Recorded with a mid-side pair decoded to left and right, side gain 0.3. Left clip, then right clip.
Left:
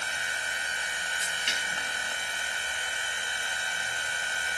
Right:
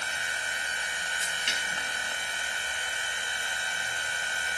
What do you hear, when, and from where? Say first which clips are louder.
0.0 s a machine running: even; straight ahead